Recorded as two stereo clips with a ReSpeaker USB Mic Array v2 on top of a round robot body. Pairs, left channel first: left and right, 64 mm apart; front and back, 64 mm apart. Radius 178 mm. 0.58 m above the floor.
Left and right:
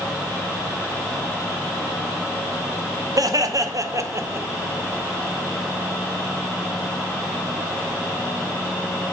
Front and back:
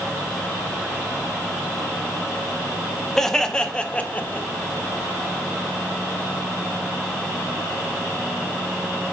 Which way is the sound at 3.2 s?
85° right.